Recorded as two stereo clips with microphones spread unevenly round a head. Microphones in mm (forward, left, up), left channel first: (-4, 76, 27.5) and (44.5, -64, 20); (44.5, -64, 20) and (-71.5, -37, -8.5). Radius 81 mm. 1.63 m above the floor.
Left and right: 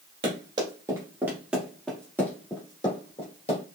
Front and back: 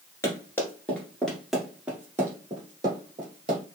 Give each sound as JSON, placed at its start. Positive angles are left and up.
{"t": 0.2, "sound": "running footsteps", "azimuth_deg": -35, "distance_m": 1.9}